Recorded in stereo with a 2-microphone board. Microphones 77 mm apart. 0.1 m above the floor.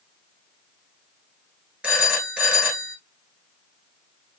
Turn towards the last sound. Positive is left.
turn(degrees=-15)  # may be behind; listen again after turning